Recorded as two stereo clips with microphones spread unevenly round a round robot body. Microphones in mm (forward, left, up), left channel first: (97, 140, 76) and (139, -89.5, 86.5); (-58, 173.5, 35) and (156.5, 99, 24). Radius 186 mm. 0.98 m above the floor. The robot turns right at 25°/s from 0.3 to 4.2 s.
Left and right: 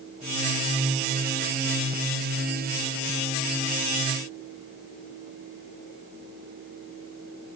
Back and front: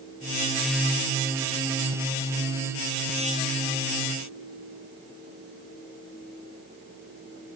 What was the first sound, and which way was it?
Only background noise.